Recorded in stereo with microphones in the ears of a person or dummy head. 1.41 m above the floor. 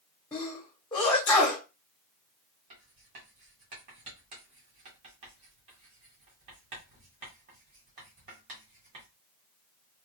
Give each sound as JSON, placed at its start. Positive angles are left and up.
{"t": 0.3, "sound": "a sneeze", "side_deg": 15, "distance_m": 1.1}
{"t": 2.7, "sound": "writing", "side_deg": -35, "distance_m": 1.6}